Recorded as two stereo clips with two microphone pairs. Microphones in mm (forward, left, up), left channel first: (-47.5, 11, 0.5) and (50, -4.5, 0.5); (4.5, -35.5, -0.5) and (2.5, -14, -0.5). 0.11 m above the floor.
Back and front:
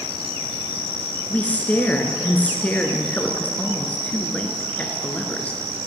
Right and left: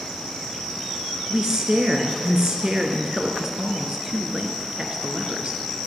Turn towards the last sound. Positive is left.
turn(degrees=115)